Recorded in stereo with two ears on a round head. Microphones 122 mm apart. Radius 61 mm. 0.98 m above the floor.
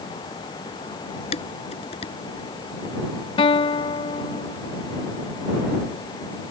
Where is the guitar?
35° left (ahead or behind).